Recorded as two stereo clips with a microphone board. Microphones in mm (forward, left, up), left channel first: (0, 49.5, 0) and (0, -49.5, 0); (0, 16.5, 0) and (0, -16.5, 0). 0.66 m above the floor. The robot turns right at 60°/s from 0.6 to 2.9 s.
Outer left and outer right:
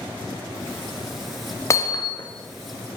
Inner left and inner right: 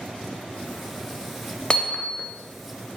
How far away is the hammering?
About 0.5 m.